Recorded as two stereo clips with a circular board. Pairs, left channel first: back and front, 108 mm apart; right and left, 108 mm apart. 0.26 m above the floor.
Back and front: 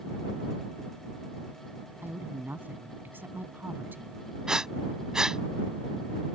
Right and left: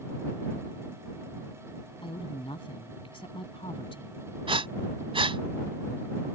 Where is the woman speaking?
70° right.